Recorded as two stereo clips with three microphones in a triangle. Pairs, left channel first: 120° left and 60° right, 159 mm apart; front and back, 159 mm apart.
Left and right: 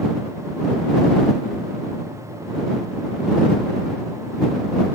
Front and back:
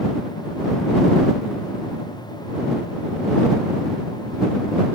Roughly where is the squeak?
No squeak in this recording.